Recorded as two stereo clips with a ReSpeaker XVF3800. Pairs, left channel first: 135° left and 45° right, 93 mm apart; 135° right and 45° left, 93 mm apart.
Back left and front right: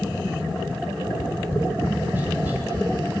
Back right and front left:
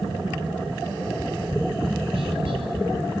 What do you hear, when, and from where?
1.0 s tapping: 25° left, 7 m